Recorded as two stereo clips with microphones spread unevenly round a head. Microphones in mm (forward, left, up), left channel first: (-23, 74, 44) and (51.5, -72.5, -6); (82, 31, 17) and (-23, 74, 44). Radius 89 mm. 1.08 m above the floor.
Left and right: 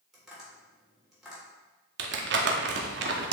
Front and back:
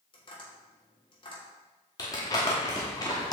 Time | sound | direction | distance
0.1 | tapping | 25° left | 3 m
2.0 | crumpling | 95° right | 1.0 m